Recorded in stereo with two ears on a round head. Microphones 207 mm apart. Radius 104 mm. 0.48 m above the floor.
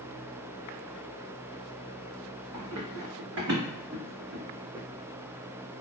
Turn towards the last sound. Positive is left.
turn(degrees=-10)  # may be behind; listen again after turning